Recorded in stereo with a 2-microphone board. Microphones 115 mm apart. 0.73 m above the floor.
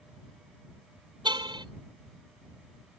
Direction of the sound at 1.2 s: 40° right (ahead or behind).